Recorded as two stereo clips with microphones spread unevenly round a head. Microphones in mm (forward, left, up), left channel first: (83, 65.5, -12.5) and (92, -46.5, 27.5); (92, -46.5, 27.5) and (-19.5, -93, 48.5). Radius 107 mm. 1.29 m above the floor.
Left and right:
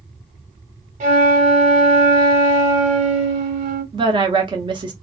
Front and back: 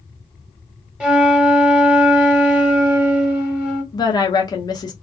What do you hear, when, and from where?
1.0 s a flute: 75° right, 1.4 m
3.9 s a woman speaking: 30° right, 0.7 m